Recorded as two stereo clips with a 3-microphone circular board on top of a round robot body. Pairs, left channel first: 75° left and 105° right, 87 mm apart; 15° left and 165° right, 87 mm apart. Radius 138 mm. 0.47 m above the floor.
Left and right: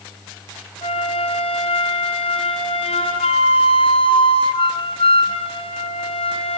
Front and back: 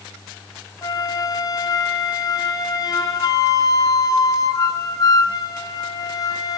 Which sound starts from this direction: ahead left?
A flute, at 0.8 s.